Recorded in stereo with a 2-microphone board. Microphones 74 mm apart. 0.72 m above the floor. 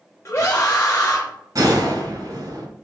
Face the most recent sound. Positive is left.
turn(degrees=-50)  # may be behind; listen again after turning